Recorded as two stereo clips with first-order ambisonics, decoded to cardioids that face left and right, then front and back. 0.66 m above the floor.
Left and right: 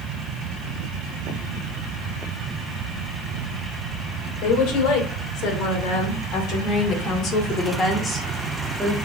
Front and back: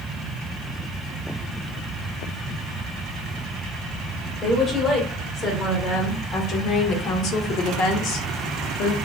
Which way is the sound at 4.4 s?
65° left.